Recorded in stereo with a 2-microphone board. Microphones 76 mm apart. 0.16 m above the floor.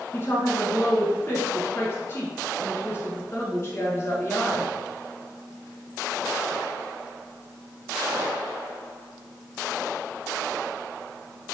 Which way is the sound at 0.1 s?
35° left (ahead or behind).